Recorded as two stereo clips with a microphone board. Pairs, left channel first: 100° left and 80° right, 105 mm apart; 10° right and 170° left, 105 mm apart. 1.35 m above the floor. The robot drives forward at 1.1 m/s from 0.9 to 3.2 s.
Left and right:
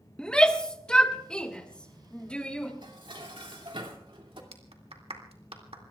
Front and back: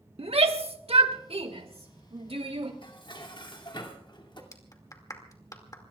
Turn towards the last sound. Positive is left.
turn(degrees=-65)